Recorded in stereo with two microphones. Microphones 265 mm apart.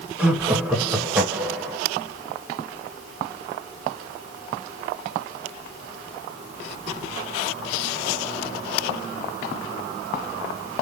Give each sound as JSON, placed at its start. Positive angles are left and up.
{"t": 0.2, "sound": "laughter", "side_deg": -5, "distance_m": 1.2}